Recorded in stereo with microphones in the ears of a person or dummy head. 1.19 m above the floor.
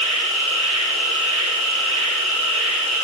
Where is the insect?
75° right (ahead or behind), 7 m.